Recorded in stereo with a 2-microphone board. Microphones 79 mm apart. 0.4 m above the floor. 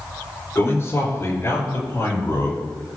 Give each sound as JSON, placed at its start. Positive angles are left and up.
{"t": 0.6, "sound": "a man speaking", "side_deg": 35, "distance_m": 5.5}